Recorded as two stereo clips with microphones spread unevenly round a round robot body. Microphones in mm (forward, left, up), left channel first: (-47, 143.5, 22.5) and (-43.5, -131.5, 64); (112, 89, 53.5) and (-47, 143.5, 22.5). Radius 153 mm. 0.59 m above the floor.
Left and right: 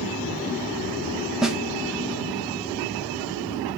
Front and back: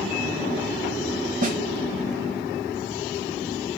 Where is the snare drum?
Straight behind, 0.6 m.